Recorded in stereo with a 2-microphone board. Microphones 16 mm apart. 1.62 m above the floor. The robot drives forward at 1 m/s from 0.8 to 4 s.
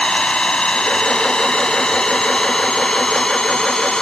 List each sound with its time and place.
0.0 s an engine running: 65° left (ahead or behind); by 4.0 s 50° left (ahead or behind)